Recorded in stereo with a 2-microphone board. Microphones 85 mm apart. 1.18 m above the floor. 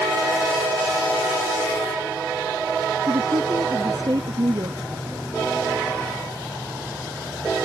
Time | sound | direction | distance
3.1 | a woman speaking | 50° right (ahead or behind) | ?